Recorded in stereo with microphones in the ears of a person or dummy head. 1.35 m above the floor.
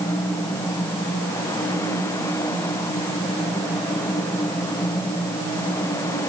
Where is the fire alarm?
I don't hear a fire alarm.